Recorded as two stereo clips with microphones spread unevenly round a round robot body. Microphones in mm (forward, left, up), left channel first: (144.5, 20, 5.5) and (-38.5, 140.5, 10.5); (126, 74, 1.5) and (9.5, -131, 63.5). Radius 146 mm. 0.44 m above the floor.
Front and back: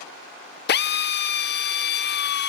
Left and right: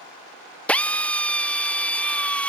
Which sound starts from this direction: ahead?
A drill, at 0.7 s.